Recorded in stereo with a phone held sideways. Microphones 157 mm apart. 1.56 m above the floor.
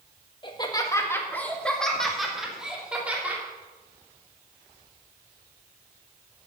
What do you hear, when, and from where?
0.4 s laughter: 30° left (ahead or behind), 1.8 m; by 3.4 s 10° right (ahead or behind), 3.5 m